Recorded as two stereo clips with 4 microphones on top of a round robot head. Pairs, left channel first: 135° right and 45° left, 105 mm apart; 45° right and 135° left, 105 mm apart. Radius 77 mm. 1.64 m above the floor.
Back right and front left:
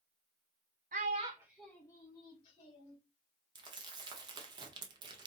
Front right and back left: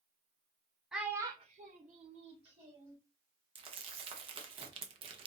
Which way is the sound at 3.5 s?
95° left.